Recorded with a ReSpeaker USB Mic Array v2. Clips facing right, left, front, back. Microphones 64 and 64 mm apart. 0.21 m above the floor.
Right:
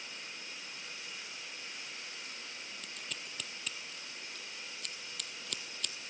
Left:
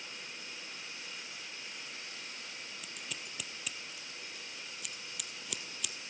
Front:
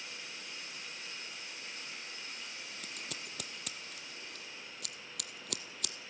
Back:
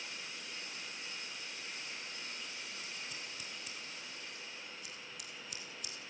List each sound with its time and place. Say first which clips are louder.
2.8 s scissors: even, front 1 dB; 10° left, 1.0 m